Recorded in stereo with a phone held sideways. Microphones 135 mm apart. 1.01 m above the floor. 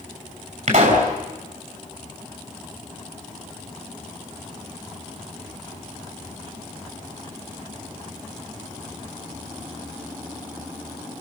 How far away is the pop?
About 6.5 m.